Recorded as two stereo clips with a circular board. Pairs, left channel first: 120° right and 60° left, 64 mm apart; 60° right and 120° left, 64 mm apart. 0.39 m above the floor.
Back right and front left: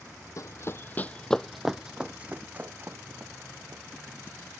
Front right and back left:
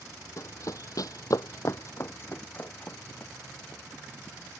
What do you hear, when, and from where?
0.4 s running footsteps: 95° right; by 3.8 s 10° left